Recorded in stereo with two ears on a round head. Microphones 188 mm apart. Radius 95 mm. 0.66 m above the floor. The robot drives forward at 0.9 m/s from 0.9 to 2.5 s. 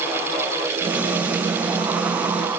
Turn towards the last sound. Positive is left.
No sound to turn to.